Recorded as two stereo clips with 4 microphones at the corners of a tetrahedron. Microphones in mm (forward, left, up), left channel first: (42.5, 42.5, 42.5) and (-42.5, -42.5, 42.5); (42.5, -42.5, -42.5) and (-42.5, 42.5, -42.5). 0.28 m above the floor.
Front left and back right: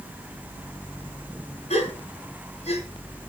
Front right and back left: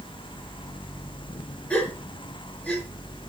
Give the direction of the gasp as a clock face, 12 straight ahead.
11 o'clock.